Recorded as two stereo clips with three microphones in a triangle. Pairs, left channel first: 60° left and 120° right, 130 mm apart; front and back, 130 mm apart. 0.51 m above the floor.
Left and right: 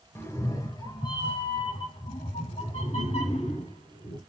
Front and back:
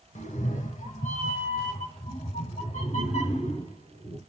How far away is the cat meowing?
About 1.3 m.